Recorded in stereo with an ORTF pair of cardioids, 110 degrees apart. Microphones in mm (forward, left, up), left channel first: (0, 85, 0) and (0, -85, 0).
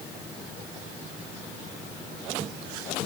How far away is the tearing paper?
I don't hear tearing paper.